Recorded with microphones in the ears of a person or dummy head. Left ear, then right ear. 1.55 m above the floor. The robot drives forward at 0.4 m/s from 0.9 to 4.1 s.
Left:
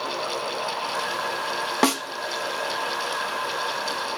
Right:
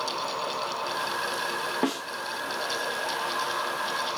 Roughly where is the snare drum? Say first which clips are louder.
Left 11 dB; left.